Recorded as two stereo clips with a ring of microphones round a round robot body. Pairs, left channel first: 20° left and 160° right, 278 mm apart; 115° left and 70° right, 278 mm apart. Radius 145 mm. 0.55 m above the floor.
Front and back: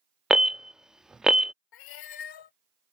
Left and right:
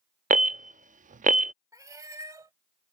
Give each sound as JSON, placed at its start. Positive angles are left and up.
{"t": 0.3, "sound": "an alarm", "azimuth_deg": -70}
{"t": 1.7, "sound": "a cat meowing", "azimuth_deg": 10}